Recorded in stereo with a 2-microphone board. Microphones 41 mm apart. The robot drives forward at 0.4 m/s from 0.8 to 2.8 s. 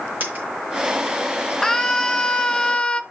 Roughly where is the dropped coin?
Right.